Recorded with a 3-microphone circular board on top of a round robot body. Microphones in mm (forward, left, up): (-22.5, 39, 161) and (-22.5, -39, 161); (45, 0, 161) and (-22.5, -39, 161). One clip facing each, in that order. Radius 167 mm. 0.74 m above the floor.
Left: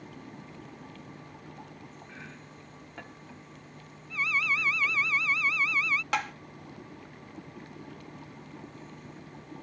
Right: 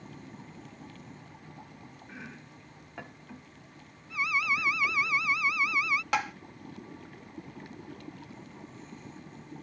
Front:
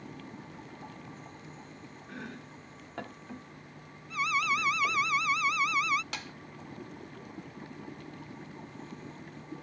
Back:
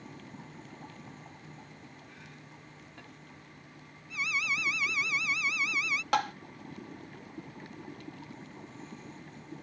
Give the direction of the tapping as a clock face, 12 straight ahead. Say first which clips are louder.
Right 2 dB, back 14 dB; 6 o'clock.